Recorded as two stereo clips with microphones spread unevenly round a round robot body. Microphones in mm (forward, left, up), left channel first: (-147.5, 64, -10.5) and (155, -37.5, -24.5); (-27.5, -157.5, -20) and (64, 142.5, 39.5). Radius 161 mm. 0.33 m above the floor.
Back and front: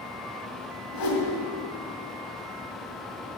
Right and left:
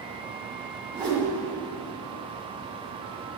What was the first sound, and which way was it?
A whoosh, 155° left.